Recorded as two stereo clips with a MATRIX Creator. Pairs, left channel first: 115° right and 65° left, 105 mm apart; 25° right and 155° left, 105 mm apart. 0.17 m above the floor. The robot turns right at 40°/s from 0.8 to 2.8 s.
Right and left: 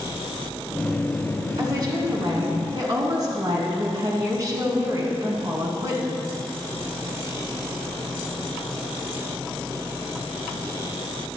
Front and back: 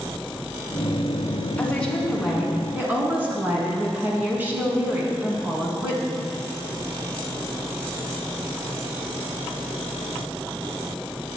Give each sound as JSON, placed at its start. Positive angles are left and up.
{"t": 1.6, "sound": "a woman speaking", "azimuth_deg": 45, "distance_m": 1.6}